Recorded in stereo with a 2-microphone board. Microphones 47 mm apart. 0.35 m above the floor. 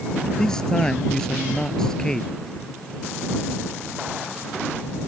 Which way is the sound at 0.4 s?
10° left (ahead or behind).